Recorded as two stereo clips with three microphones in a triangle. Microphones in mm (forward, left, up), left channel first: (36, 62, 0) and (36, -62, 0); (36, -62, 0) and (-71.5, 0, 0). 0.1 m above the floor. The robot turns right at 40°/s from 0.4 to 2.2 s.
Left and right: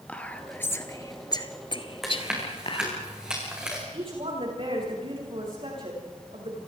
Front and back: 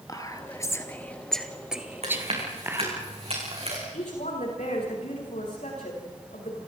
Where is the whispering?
15° left, 1.8 m; by 3.0 s 85° left, 1.8 m.